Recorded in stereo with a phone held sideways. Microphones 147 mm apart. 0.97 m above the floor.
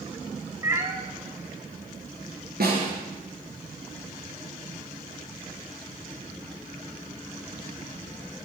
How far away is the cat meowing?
About 1.8 m.